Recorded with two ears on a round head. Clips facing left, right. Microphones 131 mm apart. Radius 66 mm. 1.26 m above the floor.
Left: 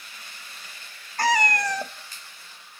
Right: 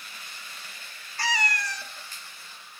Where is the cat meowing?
40° left (ahead or behind), 0.7 m.